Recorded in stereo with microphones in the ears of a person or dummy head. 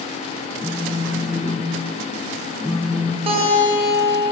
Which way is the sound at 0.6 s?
Centre (ahead or behind).